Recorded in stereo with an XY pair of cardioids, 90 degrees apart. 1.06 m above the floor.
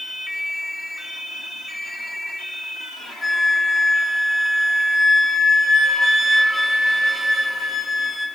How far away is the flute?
About 10 m.